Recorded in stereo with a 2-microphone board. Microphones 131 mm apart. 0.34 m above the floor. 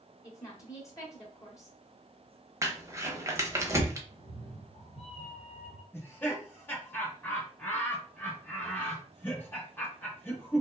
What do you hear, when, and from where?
0.2 s a woman speaking: 25° left (ahead or behind), 0.9 m
2.6 s crumpling: 25° right (ahead or behind), 0.6 m
4.1 s a cat meowing: 55° left (ahead or behind), 1.3 m
5.9 s laughter: 15° left (ahead or behind), 1.1 m